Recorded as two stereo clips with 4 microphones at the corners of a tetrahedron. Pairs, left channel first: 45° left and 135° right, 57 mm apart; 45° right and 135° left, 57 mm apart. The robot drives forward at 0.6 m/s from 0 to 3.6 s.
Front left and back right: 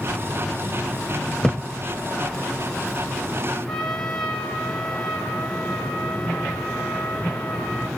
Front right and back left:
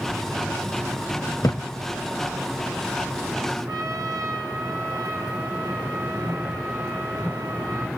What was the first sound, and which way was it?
A thud, 40° right.